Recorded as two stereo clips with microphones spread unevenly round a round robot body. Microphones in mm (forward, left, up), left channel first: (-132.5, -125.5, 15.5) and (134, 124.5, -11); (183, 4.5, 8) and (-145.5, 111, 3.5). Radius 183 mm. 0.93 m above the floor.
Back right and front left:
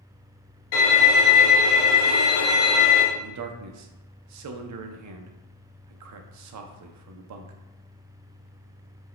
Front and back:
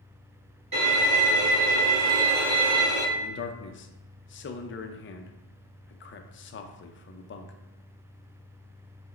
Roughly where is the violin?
Behind right.